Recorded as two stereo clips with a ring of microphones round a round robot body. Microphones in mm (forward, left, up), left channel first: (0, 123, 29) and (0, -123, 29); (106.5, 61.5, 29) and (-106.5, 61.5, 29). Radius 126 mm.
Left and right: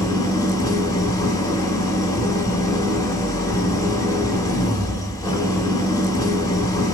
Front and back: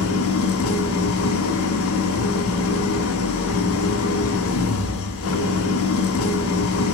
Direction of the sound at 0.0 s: 15° left.